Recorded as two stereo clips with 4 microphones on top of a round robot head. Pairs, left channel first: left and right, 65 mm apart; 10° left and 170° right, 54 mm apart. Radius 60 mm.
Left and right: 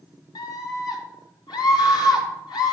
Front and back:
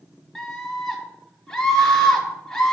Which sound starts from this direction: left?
A scream, at 0.3 s.